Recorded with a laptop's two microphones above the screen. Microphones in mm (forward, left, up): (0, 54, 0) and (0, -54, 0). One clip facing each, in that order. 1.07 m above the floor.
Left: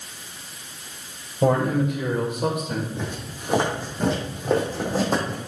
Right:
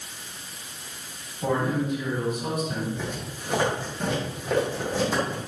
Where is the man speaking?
75° left (ahead or behind), 4.5 m; by 2.9 s 80° left, 3.5 m.